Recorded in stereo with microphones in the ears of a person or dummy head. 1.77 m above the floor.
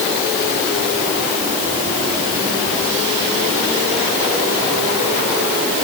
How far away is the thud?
I don't hear a thud.